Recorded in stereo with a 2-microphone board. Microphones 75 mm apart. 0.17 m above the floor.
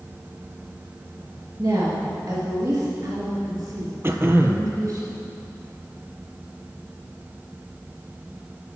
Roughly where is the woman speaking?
Right.